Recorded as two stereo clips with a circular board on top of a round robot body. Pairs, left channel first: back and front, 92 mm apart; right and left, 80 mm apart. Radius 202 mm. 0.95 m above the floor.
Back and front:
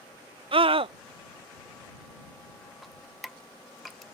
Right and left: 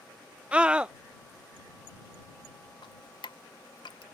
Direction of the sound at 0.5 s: 10° left.